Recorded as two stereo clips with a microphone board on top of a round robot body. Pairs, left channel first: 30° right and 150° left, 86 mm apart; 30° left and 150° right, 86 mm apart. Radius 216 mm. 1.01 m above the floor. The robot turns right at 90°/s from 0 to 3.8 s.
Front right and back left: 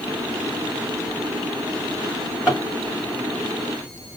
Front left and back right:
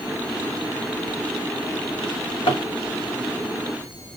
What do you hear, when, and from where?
2.0 s a drawer: 25° left, 1.3 m; by 2.6 s 75° left, 1.3 m